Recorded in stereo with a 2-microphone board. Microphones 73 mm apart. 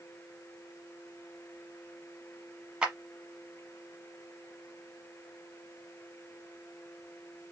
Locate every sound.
2.8 s a clap: 15° right (ahead or behind), 1.0 m